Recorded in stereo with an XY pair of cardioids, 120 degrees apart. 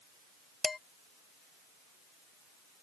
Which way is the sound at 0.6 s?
25° left.